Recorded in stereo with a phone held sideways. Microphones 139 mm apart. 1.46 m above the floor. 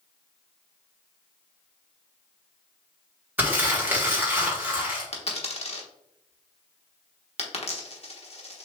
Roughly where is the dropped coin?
Left.